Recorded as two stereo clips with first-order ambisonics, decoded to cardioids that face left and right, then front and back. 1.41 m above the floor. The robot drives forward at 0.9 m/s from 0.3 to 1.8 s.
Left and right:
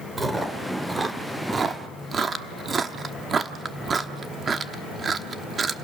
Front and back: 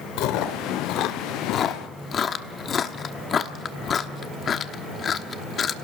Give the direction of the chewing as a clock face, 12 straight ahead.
12 o'clock.